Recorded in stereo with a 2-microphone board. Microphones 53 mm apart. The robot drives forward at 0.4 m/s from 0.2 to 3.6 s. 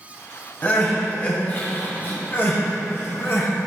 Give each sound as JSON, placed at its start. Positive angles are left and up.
{"t": 0.6, "sound": "crying", "side_deg": 30, "distance_m": 2.5}